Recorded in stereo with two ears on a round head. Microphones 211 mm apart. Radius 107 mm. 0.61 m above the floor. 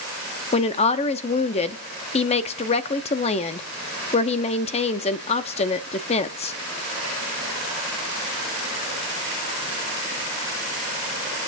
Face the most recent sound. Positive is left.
turn(degrees=25)  # may be behind; listen again after turning